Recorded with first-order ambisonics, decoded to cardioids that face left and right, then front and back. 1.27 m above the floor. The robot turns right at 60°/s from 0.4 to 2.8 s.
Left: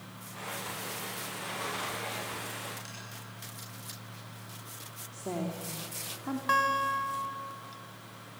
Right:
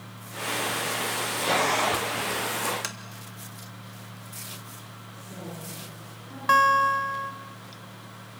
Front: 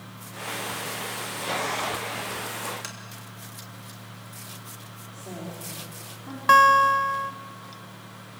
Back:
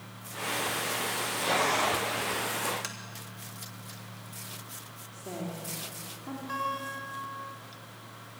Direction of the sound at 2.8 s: 90° right.